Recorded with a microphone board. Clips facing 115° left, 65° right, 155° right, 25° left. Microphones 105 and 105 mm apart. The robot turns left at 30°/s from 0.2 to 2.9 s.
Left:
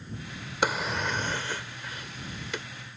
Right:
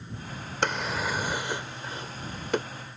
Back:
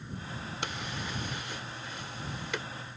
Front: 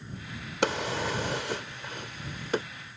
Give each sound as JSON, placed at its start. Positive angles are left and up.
{"t": 0.6, "sound": "a drawer", "azimuth_deg": 30}